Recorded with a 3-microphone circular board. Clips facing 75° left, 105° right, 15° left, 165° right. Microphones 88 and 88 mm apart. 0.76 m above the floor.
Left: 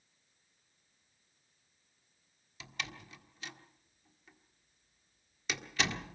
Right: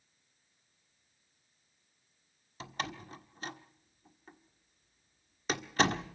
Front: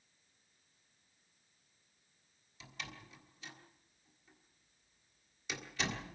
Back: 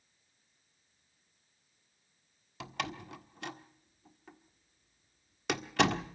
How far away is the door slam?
About 1.4 m.